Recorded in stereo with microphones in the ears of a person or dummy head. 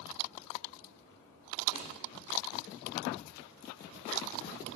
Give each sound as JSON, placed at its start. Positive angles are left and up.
{"t": 1.7, "sound": "a snare drum", "side_deg": 35, "distance_m": 3.0}